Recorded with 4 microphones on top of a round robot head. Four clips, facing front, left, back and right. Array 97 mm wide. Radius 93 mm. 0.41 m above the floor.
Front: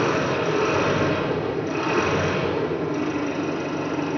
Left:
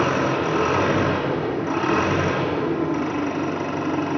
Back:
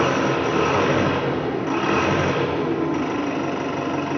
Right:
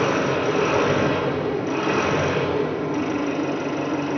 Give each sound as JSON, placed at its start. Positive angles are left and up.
{"t": 0.0, "sound": "an engine running", "azimuth_deg": 130, "distance_m": 2.5}